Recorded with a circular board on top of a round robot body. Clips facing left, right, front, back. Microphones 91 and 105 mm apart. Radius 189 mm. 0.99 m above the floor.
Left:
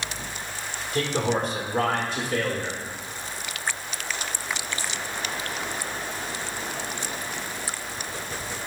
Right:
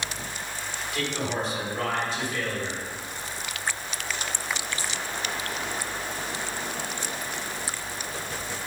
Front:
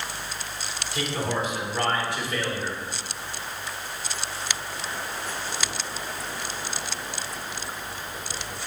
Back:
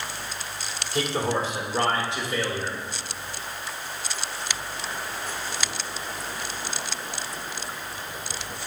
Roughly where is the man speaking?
Behind left.